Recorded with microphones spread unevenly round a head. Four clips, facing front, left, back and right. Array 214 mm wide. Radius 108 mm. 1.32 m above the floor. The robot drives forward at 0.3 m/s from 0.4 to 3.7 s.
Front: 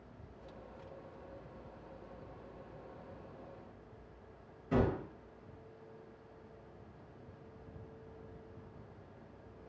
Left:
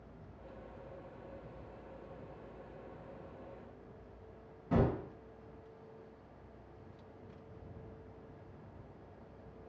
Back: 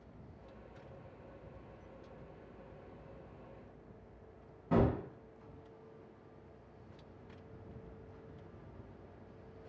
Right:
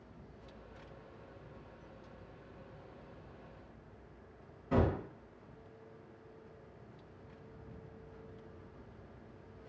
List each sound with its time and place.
4.7 s a gunshot: 155° left, 1.9 m